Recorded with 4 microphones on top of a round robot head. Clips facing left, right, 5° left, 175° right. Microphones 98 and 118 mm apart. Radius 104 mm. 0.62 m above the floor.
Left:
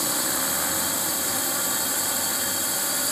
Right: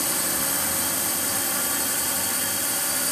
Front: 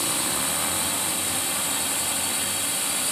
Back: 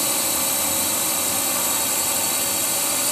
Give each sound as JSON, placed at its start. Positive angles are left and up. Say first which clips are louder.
{"t": 0.0, "sound": "a drone", "louder": "left 1 dB, back 2 dB", "azimuth_deg": 170}